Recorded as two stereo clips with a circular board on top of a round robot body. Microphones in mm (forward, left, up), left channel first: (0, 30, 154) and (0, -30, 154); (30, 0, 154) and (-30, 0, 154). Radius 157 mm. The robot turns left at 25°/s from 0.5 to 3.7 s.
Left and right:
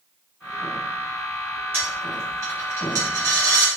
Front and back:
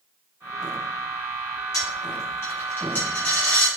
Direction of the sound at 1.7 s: 30° right.